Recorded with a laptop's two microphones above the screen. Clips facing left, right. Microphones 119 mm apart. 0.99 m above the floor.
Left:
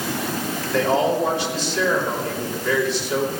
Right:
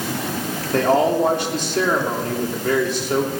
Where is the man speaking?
55° right (ahead or behind), 3 m.